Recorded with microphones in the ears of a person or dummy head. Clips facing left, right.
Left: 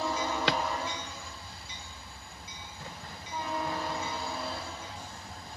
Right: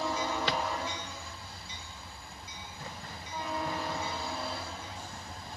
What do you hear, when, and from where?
0.5 s a drawer: 65° left (ahead or behind), 0.7 m